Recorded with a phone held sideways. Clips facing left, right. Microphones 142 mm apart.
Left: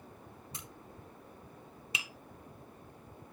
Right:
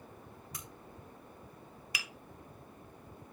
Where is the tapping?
25° left (ahead or behind), 0.7 m.